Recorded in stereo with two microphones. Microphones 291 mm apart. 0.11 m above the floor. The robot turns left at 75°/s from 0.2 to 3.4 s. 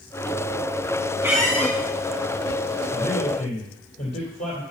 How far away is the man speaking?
About 3 m.